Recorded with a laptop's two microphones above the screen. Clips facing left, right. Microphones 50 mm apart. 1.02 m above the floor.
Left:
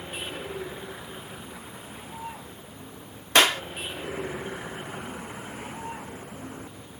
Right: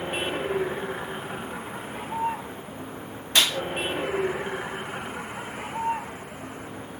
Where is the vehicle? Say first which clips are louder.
Right 7 dB; 40° right (ahead or behind).